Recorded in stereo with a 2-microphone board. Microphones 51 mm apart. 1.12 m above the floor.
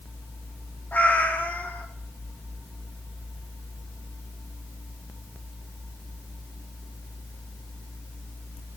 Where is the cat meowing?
35° left (ahead or behind), 0.7 m.